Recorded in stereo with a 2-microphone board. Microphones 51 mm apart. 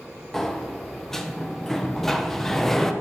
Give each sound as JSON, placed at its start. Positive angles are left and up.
{"t": 0.3, "sound": "a sliding door", "side_deg": 10, "distance_m": 0.7}